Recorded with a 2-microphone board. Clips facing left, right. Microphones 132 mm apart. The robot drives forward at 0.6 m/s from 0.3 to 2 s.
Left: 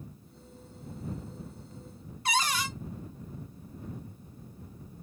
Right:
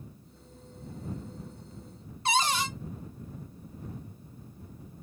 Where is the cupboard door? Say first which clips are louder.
Right 2 dB; 25° right (ahead or behind), 0.5 m.